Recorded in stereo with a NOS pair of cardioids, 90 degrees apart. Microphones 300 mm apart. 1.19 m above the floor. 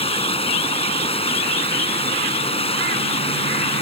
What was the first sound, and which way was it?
Running water, 20° left.